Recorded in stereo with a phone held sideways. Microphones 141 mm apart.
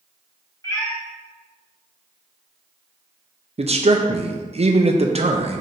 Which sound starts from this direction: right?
A man speaking, at 3.6 s.